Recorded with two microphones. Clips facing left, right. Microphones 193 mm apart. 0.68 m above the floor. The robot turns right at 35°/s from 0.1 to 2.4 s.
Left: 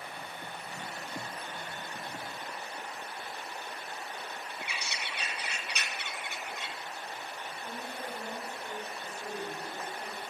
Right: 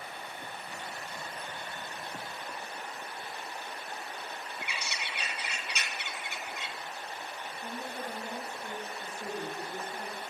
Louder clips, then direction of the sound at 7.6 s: Right 3 dB; 35° right (ahead or behind).